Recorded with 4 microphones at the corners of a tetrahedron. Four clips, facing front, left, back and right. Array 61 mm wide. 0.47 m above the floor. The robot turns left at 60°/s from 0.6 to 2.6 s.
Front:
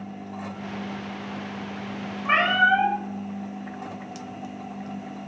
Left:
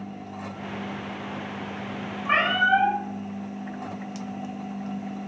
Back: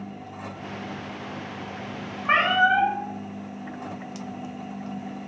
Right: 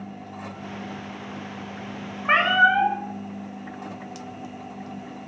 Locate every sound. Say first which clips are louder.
2.2 s a cat meowing: right 3 dB, even; 90° right, 0.7 m; by 3.0 s 110° right, 0.7 m